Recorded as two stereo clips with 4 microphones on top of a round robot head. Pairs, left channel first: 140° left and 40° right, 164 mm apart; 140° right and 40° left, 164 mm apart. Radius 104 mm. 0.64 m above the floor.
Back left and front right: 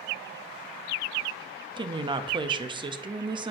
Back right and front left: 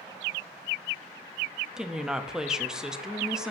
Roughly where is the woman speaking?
Ahead right.